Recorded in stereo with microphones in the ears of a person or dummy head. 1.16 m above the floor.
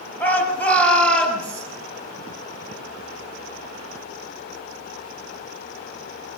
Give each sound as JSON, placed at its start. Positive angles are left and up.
{"t": 0.2, "sound": "a shout", "side_deg": 10, "distance_m": 6.5}